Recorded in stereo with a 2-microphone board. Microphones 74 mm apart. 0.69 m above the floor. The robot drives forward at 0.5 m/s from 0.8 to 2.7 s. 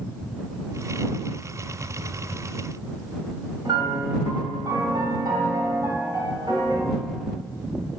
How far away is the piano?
About 1.8 m.